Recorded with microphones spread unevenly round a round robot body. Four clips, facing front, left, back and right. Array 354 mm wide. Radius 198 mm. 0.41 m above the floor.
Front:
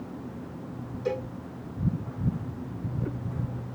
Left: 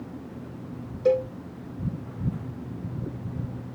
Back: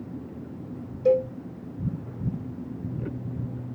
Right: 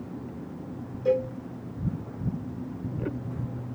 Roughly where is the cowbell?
Left.